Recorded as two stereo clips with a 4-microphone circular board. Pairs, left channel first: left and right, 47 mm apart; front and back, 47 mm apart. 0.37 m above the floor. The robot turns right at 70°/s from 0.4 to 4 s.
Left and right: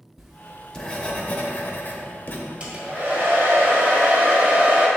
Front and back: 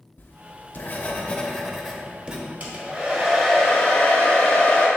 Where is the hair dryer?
140° right, 1.5 m; by 4.9 s 45° right, 1.5 m.